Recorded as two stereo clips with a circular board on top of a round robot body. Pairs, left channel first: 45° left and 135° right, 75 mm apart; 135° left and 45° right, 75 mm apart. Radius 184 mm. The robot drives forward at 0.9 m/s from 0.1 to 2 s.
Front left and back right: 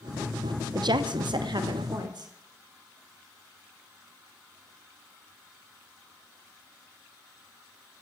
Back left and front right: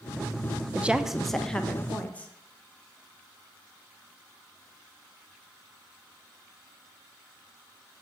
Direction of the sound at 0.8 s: 115° right.